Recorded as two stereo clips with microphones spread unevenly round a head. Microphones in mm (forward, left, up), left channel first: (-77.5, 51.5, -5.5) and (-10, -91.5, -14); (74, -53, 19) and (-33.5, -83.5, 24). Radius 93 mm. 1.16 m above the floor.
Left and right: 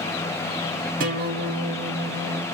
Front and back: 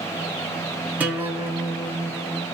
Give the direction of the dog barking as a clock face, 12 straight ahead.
I don't hear a dog barking.